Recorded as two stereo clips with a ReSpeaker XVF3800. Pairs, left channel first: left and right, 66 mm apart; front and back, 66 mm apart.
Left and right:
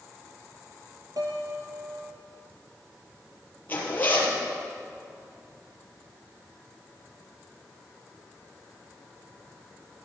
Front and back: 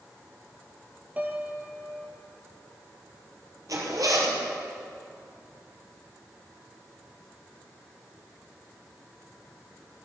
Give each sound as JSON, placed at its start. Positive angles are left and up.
{"t": 1.2, "sound": "a piano", "azimuth_deg": -115, "distance_m": 1.9}
{"t": 3.7, "sound": "a zipper", "azimuth_deg": 150, "distance_m": 3.5}